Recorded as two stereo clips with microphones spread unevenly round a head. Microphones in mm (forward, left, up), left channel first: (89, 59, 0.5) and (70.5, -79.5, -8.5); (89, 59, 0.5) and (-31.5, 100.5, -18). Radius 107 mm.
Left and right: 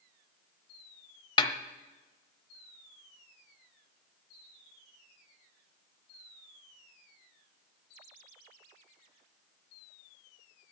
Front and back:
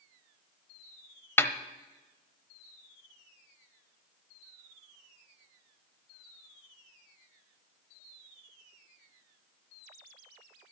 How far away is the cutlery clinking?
I don't hear cutlery clinking.